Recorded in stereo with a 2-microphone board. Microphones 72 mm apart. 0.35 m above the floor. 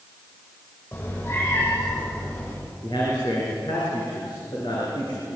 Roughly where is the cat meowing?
Left.